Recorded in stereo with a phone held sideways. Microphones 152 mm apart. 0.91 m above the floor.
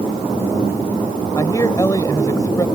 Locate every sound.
1.4 s a man speaking: 25° left (ahead or behind)